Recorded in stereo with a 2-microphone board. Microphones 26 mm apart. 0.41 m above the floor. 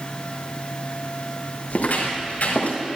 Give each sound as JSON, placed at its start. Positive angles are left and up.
{"t": 1.7, "sound": "footsteps", "side_deg": 75, "distance_m": 5.5}